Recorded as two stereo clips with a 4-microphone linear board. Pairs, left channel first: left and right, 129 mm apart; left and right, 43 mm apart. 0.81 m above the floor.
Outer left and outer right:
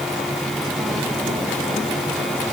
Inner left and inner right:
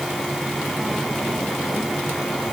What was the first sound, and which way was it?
Only background noise.